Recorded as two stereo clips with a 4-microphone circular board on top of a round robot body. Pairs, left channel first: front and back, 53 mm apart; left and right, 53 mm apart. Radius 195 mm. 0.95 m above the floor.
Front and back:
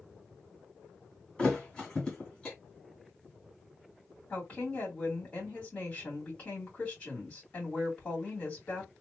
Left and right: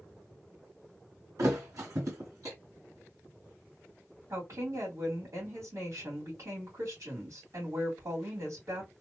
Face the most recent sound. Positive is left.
turn(degrees=-70)